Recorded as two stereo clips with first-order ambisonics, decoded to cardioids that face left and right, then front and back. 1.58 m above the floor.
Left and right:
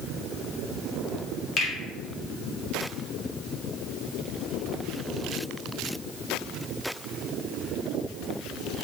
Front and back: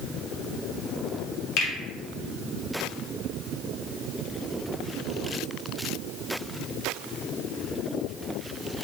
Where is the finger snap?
35° left, 1.1 m.